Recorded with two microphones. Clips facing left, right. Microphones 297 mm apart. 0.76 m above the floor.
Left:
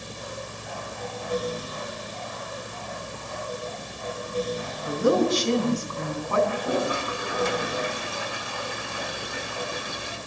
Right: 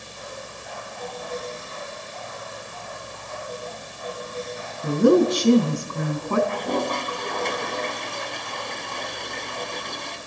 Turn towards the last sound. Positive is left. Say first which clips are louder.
# even
turn(degrees=10)  # may be behind; listen again after turning